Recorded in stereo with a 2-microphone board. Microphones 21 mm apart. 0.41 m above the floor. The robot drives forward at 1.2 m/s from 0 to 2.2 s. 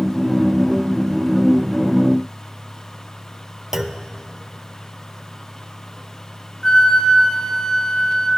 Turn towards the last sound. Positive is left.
turn(degrees=30)  # may be behind; listen again after turning